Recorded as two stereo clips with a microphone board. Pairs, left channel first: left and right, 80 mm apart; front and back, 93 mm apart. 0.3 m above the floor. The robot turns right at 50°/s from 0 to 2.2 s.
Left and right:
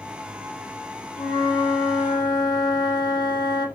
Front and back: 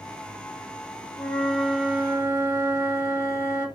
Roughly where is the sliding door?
No sliding door in this recording.